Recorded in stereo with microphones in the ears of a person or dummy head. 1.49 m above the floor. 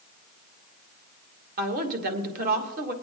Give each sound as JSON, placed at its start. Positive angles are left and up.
{"t": 1.6, "sound": "a woman speaking", "side_deg": -50, "distance_m": 1.7}